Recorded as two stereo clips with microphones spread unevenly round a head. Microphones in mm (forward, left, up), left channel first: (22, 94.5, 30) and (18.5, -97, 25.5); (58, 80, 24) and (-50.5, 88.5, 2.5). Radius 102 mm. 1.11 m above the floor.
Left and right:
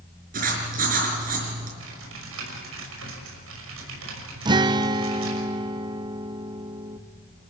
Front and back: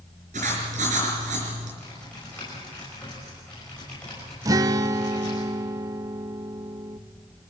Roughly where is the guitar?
Behind right.